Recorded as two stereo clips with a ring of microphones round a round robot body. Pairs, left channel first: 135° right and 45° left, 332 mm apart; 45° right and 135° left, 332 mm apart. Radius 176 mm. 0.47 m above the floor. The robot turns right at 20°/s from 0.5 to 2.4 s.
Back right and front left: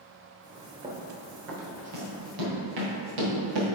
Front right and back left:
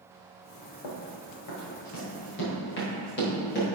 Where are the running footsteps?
30° right, 2 m; by 3.6 s 20° left, 5 m.